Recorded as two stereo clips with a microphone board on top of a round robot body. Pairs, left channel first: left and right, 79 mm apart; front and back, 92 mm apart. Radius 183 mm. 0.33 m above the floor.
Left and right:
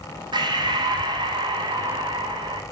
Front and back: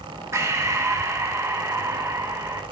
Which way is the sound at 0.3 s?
120° right.